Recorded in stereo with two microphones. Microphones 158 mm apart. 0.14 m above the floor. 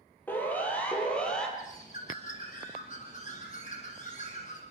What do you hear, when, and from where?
0.3 s a siren: 10° left (ahead or behind), 6 m; by 1.5 s 5° left (ahead or behind), 5.5 m
1.6 s a bird: 50° left (ahead or behind), 7 m